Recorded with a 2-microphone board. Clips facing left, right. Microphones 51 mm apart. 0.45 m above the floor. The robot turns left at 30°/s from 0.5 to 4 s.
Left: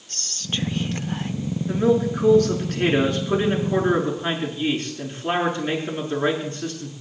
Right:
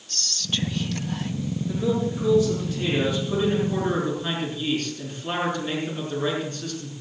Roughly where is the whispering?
Left.